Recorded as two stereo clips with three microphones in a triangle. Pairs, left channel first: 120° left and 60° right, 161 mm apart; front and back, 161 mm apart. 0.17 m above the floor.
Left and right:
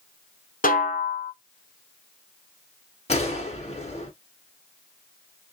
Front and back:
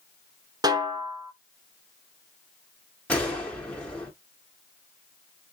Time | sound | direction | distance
0.6 | a snare drum | 120° left | 0.7 m
3.1 | a gunshot | 80° left | 1.3 m